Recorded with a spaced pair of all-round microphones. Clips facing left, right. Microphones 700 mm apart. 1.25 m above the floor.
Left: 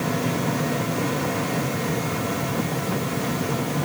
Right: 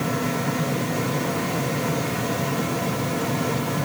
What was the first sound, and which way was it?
Only background noise.